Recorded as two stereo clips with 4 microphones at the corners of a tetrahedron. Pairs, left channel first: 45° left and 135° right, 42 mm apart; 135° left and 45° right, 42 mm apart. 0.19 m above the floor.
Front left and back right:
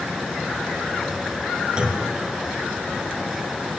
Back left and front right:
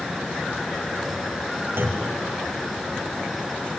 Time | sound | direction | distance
1.8 | a clunk | 70° right | 3 m